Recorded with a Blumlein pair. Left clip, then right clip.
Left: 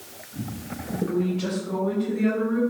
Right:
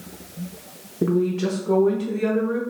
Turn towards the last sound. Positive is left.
turn(degrees=-55)